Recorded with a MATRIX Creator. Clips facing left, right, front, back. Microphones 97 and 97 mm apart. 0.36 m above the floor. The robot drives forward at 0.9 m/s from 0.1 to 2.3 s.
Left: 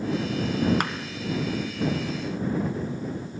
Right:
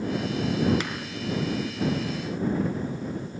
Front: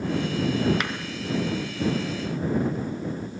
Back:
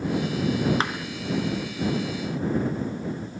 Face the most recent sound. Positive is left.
turn(degrees=145)